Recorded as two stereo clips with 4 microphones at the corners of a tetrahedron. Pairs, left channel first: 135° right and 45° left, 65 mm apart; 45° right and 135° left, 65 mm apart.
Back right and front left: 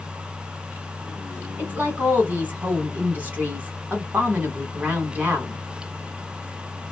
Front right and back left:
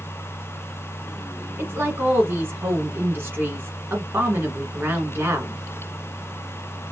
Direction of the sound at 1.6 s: 95° left.